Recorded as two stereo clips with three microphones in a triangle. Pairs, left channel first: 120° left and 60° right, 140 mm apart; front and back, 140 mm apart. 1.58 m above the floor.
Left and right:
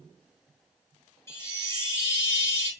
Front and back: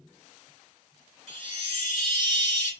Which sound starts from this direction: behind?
A chime, at 1.3 s.